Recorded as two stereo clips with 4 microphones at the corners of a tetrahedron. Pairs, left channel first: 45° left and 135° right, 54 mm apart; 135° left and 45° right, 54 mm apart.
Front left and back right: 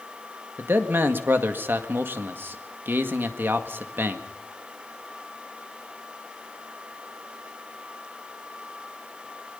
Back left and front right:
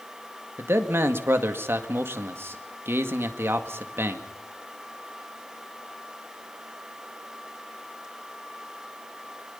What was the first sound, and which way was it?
A man speaking, 85° right.